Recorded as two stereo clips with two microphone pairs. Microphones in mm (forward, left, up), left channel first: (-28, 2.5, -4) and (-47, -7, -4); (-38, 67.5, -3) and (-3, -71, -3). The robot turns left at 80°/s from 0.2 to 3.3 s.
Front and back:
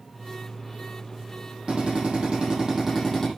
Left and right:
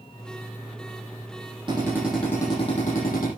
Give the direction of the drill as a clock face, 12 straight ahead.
4 o'clock.